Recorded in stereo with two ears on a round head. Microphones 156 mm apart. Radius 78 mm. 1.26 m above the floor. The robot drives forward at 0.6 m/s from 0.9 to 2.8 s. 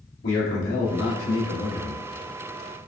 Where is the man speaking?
85° left, 1.6 m; by 2.0 s 70° left (ahead or behind), 1.6 m.